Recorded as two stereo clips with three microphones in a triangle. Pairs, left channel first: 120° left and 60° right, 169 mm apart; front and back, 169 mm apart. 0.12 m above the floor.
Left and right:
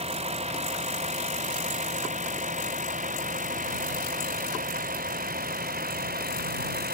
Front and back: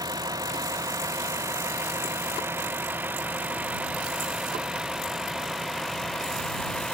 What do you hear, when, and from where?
0.0 s a vehicle: 110° right; by 7.0 s 85° right